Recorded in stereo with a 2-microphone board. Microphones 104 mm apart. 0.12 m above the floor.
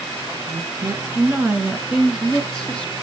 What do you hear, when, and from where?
0.4 s a woman speaking: 35° right (ahead or behind), 1.6 m; by 2.9 s 15° left (ahead or behind), 1.2 m